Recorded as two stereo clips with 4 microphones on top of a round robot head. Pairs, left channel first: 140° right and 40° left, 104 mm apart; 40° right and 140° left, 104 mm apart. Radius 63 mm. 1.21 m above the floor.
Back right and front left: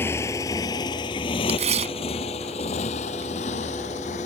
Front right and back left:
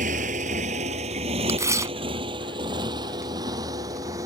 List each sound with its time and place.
0.0 s a motorcycle: 150° left; by 4.3 s 160° right
1.5 s tearing paper: 75° left